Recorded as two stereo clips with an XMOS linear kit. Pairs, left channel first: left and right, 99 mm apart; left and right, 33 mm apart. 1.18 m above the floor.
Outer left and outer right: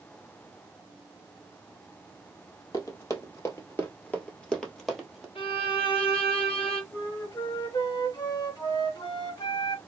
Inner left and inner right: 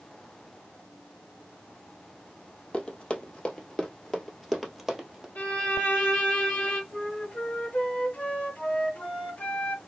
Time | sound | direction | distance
2.7 | running footsteps | 40° left (ahead or behind) | 1.6 m
5.3 | a violin | 75° left (ahead or behind) | 1.1 m
6.9 | a flute | 50° left (ahead or behind) | 1.5 m